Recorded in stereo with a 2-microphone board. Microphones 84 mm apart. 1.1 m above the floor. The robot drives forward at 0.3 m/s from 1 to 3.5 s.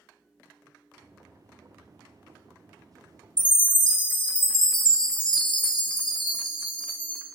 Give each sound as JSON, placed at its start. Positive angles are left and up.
{"t": 3.4, "sound": "a chime", "side_deg": 70, "distance_m": 0.6}